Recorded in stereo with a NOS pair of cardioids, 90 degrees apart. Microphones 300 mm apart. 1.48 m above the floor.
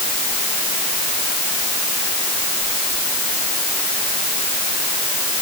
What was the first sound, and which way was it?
Only background noise.